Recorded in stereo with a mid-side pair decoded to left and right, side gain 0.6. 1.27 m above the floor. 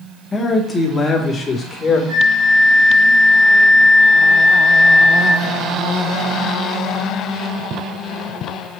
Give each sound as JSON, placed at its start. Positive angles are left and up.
{"t": 0.3, "sound": "a man speaking", "azimuth_deg": 25, "distance_m": 1.9}
{"t": 2.1, "sound": "a flute", "azimuth_deg": -55, "distance_m": 3.5}